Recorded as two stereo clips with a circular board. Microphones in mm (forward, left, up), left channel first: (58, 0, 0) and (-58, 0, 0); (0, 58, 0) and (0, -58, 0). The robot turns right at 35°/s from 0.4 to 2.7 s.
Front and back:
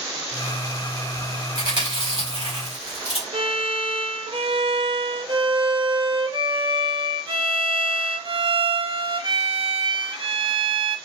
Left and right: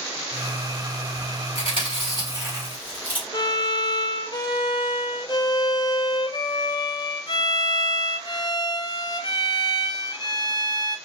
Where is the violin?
140° left, 0.6 m.